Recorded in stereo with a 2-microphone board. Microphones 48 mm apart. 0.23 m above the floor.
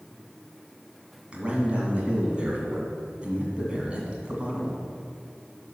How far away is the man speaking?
About 2 m.